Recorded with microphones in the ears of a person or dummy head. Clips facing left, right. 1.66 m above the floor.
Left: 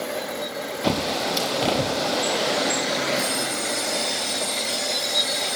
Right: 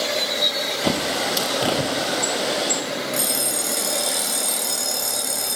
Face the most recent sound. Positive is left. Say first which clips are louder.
# left 1 dB
turn(degrees=-80)